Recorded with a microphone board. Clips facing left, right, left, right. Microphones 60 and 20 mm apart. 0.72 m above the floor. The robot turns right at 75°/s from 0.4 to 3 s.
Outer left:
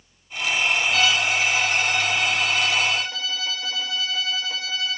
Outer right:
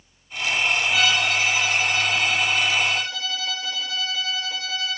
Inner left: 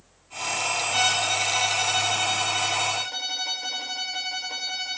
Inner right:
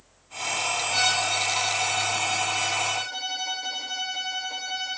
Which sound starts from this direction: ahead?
A violin, at 0.9 s.